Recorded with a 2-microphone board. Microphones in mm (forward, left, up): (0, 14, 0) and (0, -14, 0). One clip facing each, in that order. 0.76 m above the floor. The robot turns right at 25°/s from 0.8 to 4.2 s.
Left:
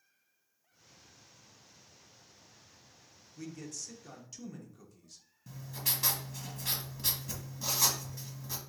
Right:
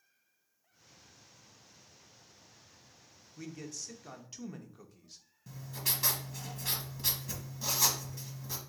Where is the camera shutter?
No camera shutter in this recording.